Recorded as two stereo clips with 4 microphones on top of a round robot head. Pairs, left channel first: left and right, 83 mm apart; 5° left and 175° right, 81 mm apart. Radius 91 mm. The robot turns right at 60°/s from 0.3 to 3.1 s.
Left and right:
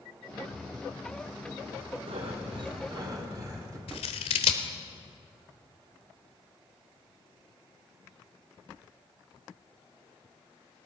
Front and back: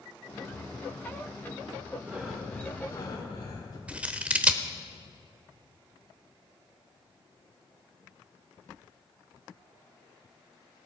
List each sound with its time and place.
2.0 s breathing: 105° right, 2.5 m; by 3.8 s 40° right, 2.5 m
3.9 s scissors: 110° left, 1.0 m